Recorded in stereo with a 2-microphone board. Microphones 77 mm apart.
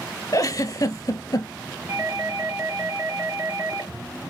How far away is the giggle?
About 0.7 m.